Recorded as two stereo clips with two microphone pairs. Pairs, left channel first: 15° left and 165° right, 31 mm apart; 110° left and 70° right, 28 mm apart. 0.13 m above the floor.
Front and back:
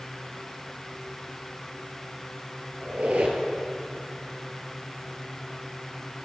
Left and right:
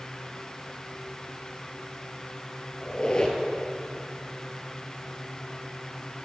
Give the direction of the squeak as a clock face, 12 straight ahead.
6 o'clock.